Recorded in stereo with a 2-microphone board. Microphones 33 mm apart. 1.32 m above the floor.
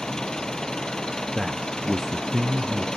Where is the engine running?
20° left (ahead or behind).